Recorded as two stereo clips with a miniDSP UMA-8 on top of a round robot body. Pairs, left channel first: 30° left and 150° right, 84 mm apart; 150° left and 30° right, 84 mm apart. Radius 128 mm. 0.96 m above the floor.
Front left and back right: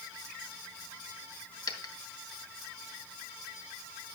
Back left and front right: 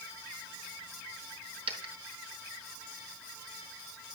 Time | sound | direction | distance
1.7 | a dropped coin | 10° right | 1.7 m